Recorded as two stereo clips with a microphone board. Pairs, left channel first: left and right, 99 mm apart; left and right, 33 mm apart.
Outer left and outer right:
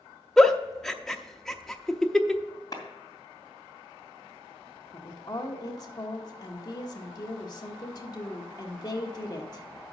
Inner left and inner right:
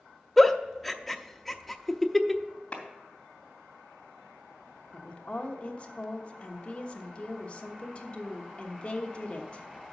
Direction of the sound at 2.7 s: 40° left (ahead or behind).